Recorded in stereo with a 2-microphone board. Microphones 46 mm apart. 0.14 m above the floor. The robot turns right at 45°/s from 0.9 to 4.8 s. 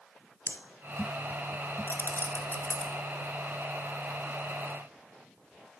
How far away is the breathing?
About 0.8 m.